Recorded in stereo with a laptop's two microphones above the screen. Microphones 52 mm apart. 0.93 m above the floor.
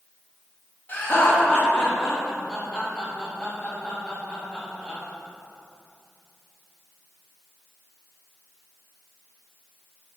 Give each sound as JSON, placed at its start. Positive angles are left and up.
{"t": 0.9, "sound": "laughter", "side_deg": 35, "distance_m": 0.8}